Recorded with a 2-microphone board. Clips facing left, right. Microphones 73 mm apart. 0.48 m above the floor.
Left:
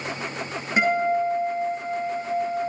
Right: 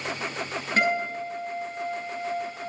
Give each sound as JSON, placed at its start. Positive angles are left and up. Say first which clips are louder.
{"t": 0.8, "sound": "a guitar", "louder": "left 5 dB", "side_deg": 15, "distance_m": 7.0}